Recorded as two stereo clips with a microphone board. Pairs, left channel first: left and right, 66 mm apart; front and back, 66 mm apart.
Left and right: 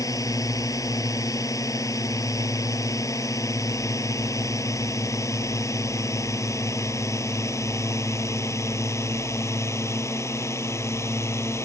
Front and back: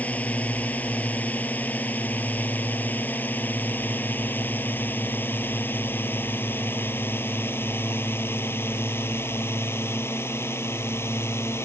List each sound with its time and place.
0.0 s a drone: 65° left; by 11.6 s 45° left